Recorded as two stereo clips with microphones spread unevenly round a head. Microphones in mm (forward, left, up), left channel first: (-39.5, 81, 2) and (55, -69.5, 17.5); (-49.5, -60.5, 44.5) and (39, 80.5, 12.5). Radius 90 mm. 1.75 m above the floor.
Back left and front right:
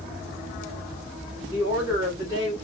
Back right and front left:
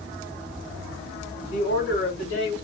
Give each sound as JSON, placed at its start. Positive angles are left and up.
{"t": 1.5, "sound": "a woman speaking", "azimuth_deg": -135, "distance_m": 2.5}